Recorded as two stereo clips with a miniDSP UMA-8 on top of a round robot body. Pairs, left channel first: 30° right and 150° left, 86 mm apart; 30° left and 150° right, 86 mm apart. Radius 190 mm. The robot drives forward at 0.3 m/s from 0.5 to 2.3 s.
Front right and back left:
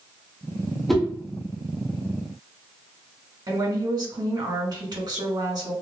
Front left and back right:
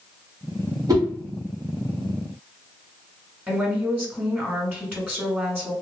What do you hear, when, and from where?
0.9 s a whoosh: 120° right, 1.2 m
3.5 s a woman speaking: 145° left, 1.6 m